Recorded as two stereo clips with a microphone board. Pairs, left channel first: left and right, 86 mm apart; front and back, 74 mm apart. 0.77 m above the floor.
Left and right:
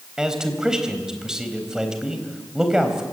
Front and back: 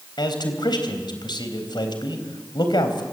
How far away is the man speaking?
About 4 m.